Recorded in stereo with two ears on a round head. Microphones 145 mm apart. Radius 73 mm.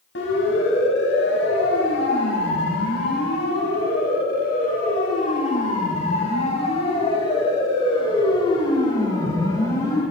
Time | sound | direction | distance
0.1 | a siren | 80° left | 7 m